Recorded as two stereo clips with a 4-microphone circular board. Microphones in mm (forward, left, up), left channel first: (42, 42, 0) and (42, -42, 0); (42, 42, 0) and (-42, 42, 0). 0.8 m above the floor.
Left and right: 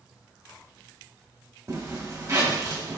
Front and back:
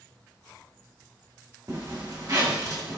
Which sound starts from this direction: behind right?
A zipper, at 1.7 s.